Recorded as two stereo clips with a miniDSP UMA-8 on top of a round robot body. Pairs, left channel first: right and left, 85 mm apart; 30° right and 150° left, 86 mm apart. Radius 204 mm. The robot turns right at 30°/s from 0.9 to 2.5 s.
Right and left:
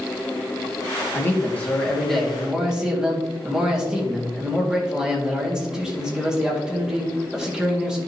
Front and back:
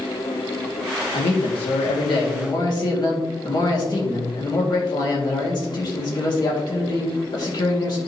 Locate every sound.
1.1 s a man speaking: 30° right, 2 m; by 8.0 s 10° left, 2 m